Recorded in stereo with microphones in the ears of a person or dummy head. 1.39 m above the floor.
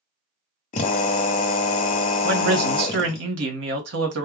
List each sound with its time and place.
0.7 s a drill: 50° left (ahead or behind), 1.1 m
2.2 s a man speaking: 75° right (ahead or behind), 1.5 m